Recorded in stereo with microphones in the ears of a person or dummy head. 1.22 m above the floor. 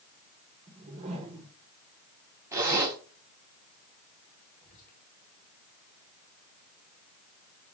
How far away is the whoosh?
About 0.9 m.